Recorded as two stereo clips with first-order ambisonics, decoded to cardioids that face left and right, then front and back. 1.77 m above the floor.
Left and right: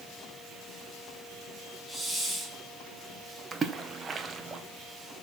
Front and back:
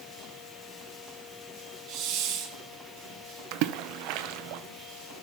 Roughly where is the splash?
Behind.